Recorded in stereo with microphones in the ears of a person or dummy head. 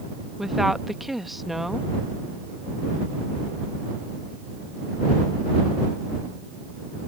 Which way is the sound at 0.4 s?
Centre (ahead or behind).